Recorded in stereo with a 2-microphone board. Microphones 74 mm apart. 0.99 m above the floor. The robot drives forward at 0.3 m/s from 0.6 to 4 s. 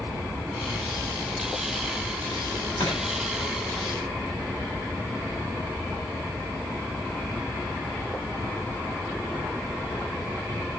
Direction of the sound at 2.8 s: 85° left.